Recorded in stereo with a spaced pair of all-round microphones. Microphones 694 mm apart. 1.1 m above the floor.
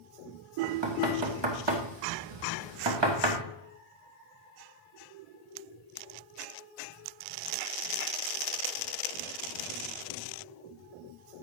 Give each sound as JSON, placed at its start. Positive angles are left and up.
{"t": 0.6, "sound": "knocking", "side_deg": -40, "distance_m": 1.2}